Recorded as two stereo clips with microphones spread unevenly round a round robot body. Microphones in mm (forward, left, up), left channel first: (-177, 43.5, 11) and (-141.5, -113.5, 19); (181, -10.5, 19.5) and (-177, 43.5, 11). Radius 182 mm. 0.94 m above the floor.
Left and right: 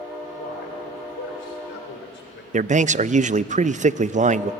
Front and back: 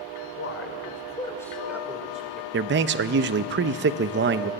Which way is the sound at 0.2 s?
40° left.